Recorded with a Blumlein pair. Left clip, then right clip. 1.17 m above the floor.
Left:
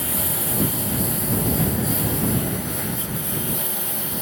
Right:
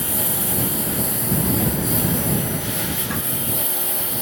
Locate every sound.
0.0 s a lawn mower: 5° right; by 4.2 s 10° right